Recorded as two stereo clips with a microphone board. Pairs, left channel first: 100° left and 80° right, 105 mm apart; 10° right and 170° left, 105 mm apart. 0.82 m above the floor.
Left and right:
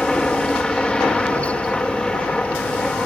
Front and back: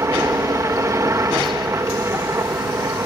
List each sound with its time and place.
0.0 s a helicopter: 175° left